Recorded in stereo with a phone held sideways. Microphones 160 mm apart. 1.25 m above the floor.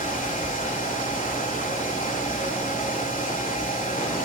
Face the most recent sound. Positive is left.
turn(degrees=55)  # may be behind; listen again after turning